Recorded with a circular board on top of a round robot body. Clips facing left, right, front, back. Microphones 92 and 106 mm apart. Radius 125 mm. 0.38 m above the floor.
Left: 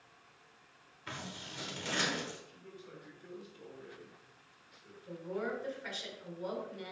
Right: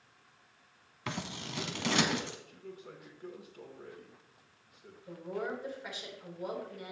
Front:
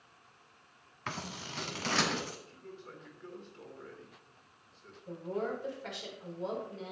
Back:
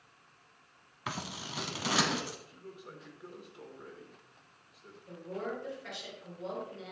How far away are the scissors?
About 1.1 m.